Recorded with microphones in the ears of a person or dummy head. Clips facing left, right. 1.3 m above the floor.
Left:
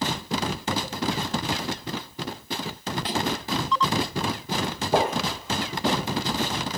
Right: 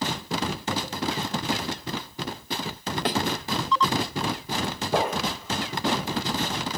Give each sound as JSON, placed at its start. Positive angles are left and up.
{"t": 3.0, "sound": "a thud", "side_deg": -40, "distance_m": 0.8}
{"t": 4.9, "sound": "footsteps", "side_deg": 25, "distance_m": 2.5}